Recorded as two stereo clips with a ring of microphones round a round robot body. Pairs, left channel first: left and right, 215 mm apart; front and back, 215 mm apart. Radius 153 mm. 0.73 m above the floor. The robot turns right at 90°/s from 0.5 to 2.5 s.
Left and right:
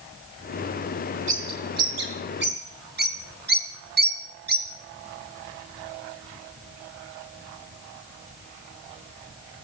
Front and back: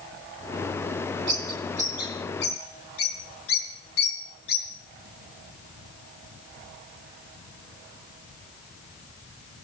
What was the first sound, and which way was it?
A bird, 160° right.